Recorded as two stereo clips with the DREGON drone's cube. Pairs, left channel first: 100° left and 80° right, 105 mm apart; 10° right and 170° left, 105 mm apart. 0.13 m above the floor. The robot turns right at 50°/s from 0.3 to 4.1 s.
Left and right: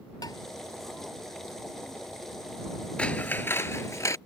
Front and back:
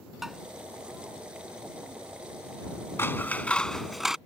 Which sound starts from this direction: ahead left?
Scissors, at 3.0 s.